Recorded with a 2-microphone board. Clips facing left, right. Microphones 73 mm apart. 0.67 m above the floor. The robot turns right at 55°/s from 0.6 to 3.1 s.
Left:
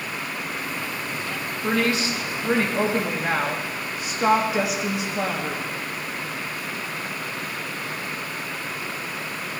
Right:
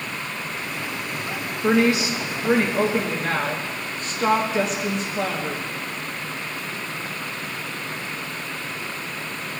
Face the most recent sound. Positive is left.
turn(degrees=10)  # may be behind; listen again after turning